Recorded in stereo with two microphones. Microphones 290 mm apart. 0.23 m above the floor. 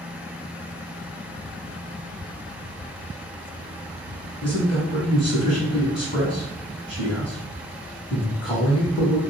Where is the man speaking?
20° left (ahead or behind), 1.4 m.